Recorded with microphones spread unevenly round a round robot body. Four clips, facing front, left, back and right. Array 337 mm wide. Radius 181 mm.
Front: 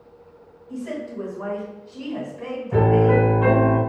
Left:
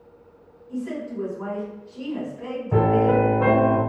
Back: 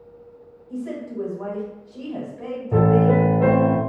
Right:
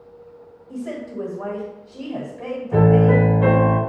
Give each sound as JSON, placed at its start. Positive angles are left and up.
{"t": 0.7, "sound": "a woman speaking", "azimuth_deg": -105, "distance_m": 1.6}
{"t": 2.7, "sound": "a piano", "azimuth_deg": 150, "distance_m": 1.5}